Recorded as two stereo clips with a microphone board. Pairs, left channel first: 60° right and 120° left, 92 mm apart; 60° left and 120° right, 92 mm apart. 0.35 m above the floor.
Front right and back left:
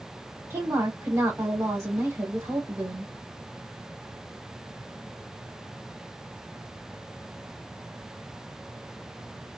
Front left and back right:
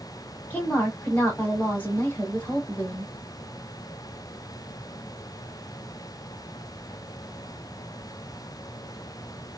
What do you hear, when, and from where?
0.5 s a woman speaking: 110° left, 1.3 m